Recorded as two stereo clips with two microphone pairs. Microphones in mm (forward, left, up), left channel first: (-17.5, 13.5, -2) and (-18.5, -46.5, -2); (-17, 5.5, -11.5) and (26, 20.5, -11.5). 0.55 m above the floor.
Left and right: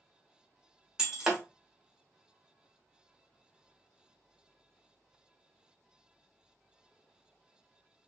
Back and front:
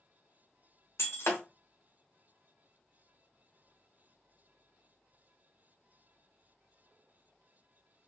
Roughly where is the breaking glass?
Behind.